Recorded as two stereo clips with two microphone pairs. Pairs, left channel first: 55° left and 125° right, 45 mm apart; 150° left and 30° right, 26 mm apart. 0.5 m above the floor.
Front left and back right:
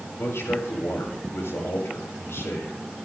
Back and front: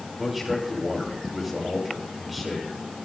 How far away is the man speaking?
About 7 m.